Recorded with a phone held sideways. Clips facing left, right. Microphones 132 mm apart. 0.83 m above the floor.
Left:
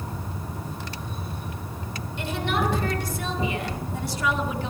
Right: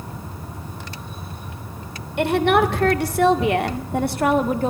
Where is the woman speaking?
70° right (ahead or behind), 3 m; by 4.7 s 45° right (ahead or behind), 1.9 m.